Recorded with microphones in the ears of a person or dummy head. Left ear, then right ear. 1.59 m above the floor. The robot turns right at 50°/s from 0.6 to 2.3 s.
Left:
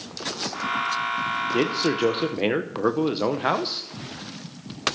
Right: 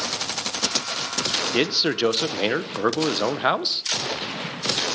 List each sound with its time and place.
1.5 s a man speaking: 70° right, 0.9 m; by 3.8 s 30° right, 0.9 m